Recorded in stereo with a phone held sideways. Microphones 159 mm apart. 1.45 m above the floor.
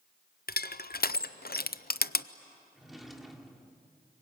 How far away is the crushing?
About 0.6 m.